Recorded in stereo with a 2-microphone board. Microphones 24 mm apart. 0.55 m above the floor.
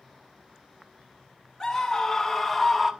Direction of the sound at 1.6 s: 20° left (ahead or behind).